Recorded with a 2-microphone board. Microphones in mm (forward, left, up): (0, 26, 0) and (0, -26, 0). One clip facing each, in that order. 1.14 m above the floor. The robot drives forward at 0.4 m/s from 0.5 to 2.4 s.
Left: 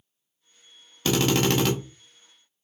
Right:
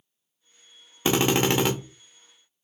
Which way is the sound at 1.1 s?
25° right (ahead or behind).